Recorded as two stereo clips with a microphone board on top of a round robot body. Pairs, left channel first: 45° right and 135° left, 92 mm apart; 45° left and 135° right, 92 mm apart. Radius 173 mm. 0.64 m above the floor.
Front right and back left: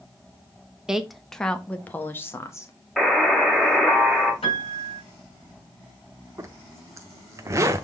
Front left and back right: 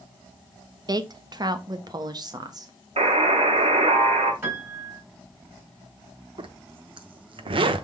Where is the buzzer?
135° right, 1.9 m.